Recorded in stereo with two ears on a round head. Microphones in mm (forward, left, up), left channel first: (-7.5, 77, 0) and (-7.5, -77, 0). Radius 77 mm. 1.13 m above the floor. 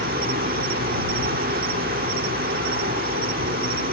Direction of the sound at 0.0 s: 55° right (ahead or behind).